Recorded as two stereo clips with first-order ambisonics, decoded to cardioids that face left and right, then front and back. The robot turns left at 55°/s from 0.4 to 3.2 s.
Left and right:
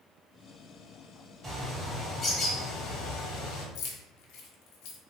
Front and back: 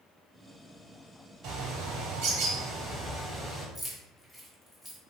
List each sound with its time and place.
1.4 s a bird: 150° right, 1.1 m; by 3.6 s 115° left, 1.1 m
3.8 s keys jangling: 90° left, 0.6 m